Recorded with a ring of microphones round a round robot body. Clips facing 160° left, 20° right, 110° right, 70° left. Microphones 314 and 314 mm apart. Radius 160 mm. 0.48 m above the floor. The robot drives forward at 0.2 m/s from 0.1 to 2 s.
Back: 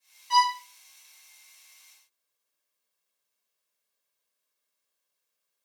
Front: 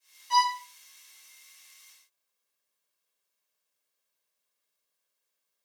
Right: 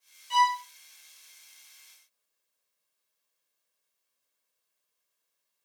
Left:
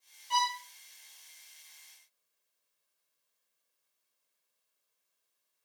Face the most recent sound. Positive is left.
turn(degrees=170)